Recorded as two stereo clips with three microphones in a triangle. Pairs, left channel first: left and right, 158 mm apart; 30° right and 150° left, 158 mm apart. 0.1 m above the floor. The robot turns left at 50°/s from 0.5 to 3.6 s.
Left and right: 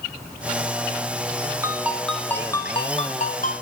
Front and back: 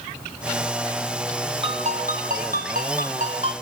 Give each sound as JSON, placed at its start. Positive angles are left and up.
{"t": 1.6, "sound": "a ringtone", "azimuth_deg": -160, "distance_m": 1.2}